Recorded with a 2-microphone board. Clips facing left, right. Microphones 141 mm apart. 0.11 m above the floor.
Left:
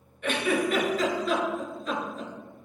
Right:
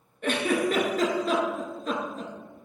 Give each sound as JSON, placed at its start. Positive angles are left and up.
{"t": 0.2, "sound": "a giggle", "side_deg": -40, "distance_m": 0.9}